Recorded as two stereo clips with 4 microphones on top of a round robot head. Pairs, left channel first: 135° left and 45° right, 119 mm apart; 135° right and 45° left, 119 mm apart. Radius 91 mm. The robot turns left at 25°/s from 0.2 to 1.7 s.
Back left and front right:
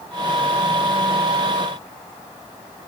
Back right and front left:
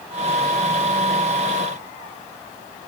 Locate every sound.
Only background noise.